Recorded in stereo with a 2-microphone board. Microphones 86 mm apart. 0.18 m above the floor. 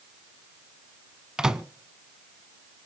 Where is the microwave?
5° right (ahead or behind), 1.1 m.